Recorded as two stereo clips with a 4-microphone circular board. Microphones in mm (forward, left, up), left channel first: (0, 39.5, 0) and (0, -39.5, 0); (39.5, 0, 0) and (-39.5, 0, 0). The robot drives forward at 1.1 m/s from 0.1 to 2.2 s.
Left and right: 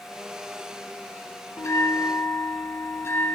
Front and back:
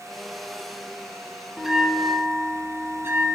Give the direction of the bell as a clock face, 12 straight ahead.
9 o'clock.